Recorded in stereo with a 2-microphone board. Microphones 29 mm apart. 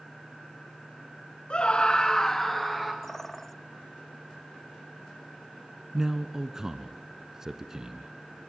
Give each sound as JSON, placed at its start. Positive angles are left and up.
{"t": 1.5, "sound": "a scream", "side_deg": 35, "distance_m": 1.3}
{"t": 3.0, "sound": "a bird", "side_deg": 10, "distance_m": 0.7}
{"t": 5.9, "sound": "a man speaking", "side_deg": -25, "distance_m": 1.2}